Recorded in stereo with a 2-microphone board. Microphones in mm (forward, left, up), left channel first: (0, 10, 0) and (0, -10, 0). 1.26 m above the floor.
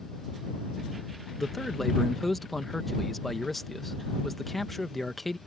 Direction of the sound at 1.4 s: 10° left (ahead or behind).